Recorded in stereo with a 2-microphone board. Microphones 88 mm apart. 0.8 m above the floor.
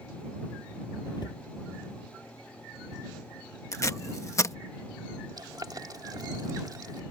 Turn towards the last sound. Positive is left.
turn(degrees=-50)  # may be behind; listen again after turning